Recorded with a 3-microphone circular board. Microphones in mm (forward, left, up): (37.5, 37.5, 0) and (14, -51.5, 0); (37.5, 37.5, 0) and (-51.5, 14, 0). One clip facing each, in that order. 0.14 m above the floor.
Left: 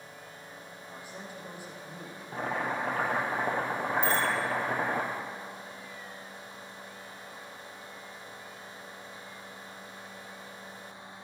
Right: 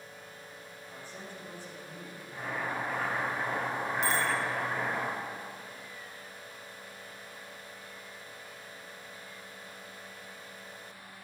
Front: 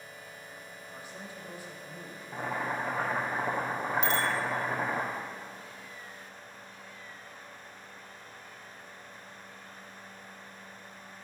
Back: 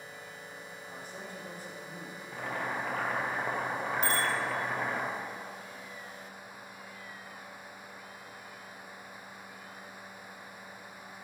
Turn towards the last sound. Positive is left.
turn(degrees=-115)